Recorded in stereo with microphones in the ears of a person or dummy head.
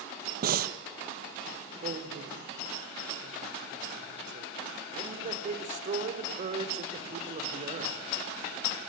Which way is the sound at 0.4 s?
45° right (ahead or behind).